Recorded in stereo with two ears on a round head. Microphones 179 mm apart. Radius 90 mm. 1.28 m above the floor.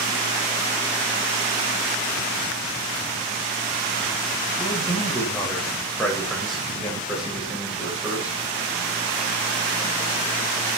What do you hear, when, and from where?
4.6 s a man speaking: 10° left (ahead or behind), 7 m; by 8.4 s 10° right (ahead or behind), 8 m